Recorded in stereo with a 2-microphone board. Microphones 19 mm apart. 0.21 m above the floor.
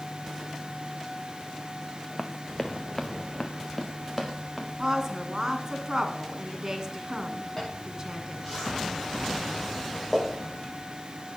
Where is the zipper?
5° right (ahead or behind), 7 m.